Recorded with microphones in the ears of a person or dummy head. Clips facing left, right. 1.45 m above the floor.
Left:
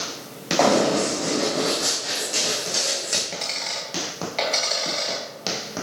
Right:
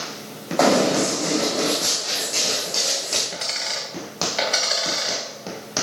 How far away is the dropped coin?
About 2.5 m.